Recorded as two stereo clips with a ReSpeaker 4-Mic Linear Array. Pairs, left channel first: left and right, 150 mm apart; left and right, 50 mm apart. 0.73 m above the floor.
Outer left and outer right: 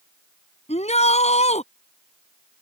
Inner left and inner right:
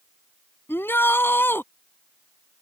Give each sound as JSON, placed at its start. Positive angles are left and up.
{"t": 0.7, "sound": "a shout", "side_deg": 45}